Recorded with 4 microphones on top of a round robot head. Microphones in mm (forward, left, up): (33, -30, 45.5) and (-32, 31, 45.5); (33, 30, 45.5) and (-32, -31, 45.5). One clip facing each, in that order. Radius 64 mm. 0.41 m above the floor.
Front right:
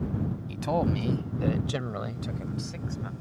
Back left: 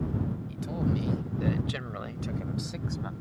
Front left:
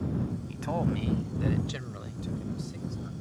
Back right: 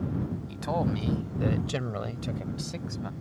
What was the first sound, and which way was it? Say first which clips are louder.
A man speaking: front right 6 dB, back right 2 dB; 55° right.